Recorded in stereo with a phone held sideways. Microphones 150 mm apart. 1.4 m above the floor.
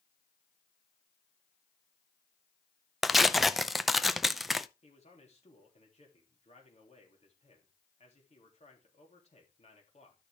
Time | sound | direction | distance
3.0 | tearing paper | centre (ahead or behind) | 0.5 m
4.8 | a man speaking | 45° left (ahead or behind) | 3.5 m